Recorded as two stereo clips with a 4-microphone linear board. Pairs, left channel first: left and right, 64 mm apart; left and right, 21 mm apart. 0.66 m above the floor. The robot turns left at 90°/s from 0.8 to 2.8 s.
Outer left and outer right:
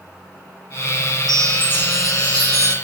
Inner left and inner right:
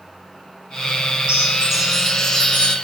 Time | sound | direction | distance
1.3 | a chime | 115° right | 3 m